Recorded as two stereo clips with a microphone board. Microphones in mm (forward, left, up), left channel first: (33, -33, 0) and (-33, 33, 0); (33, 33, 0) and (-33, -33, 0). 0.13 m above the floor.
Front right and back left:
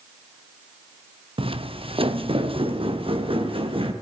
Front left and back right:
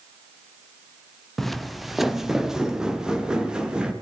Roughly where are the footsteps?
Behind left.